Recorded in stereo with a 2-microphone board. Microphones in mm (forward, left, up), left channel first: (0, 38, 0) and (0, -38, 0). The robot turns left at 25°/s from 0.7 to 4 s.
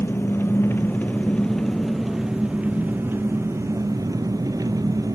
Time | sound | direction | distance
0.0 | an engine running | 30° left | 1.1 m